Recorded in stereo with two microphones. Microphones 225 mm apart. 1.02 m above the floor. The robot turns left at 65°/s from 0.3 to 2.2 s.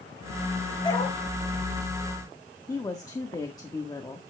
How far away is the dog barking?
About 7.5 m.